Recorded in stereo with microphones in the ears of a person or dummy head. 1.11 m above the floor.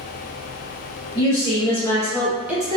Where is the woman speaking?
30° left (ahead or behind), 1.2 m; by 2.8 s 25° right (ahead or behind), 0.5 m.